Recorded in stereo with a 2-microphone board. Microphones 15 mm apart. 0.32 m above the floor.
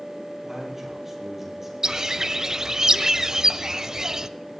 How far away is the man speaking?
About 9.5 m.